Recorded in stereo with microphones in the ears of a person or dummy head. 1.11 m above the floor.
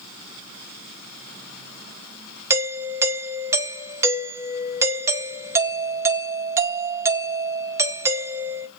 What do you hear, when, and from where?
2.5 s a doorbell: 15° right (ahead or behind), 0.7 m